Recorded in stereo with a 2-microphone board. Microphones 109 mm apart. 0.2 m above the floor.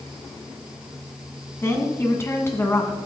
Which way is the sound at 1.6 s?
25° left (ahead or behind).